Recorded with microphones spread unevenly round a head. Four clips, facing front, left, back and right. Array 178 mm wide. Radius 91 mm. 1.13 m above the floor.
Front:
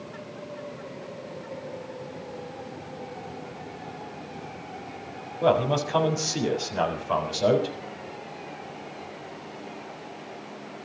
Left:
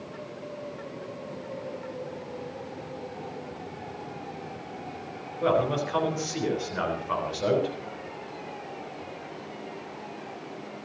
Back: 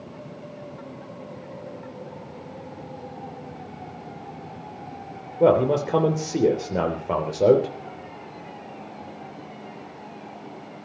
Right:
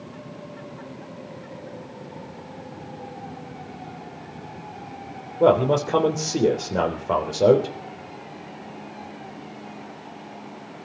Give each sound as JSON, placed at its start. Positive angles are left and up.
{"t": 5.4, "sound": "a man speaking", "azimuth_deg": -135, "distance_m": 3.5}